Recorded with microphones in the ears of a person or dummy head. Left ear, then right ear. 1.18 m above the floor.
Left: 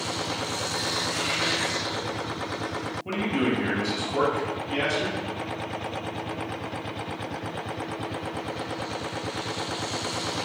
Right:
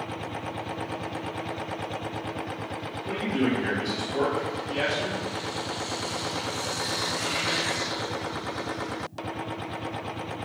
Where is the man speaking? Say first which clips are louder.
Even; 65° left (ahead or behind), 1.5 m.